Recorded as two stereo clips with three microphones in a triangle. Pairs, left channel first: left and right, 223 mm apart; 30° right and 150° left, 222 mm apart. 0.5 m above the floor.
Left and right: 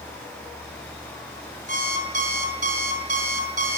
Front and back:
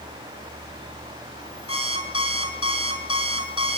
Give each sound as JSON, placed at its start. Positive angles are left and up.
{"t": 1.7, "sound": "an alarm clock", "azimuth_deg": -35, "distance_m": 4.0}